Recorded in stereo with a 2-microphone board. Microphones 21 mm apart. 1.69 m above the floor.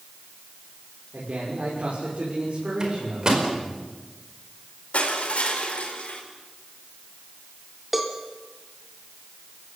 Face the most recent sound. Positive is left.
turn(degrees=-5)  # may be behind; listen again after turning